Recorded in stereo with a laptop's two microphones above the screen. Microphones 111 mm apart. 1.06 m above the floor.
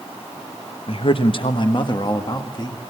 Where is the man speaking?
55° left (ahead or behind), 0.7 m; by 2.8 s 40° left (ahead or behind), 1.7 m.